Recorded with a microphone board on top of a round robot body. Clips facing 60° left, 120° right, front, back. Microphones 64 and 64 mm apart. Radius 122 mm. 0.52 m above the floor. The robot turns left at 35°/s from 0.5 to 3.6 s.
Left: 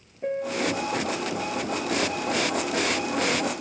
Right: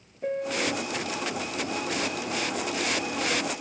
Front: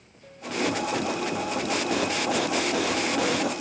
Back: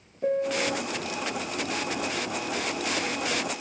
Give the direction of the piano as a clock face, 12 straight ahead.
7 o'clock.